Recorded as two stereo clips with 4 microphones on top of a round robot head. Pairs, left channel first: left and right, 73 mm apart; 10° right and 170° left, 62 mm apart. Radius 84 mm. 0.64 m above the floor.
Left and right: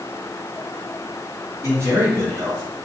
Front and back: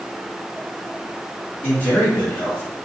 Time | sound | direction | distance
1.6 | a man speaking | 60° right | 1.7 m